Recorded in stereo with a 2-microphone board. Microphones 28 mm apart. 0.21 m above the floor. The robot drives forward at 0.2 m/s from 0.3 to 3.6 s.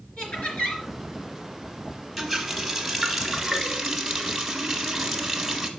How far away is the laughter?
About 3.5 m.